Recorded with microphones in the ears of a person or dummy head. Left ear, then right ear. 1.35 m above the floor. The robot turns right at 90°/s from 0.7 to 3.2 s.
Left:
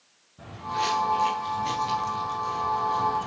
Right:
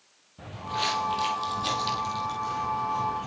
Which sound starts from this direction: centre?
Footsteps, at 0.4 s.